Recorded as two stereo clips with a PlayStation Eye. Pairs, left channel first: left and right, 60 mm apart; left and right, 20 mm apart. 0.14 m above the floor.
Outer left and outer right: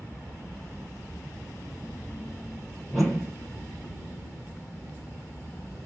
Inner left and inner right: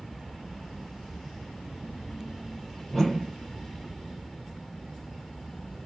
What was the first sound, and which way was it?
A whoosh, centre (ahead or behind).